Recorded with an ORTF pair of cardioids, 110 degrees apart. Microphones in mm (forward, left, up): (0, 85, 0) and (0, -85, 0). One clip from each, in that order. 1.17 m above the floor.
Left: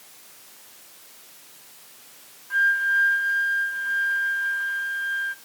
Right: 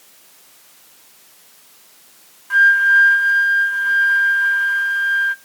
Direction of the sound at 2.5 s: 45° right.